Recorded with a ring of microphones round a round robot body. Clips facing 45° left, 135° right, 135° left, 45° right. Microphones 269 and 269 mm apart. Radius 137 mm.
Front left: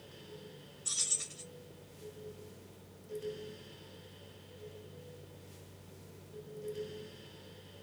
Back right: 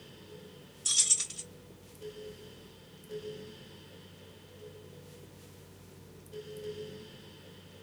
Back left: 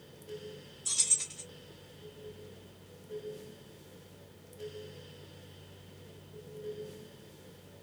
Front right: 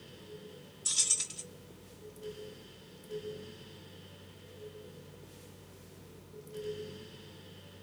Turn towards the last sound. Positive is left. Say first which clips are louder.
# even, even
turn(degrees=-105)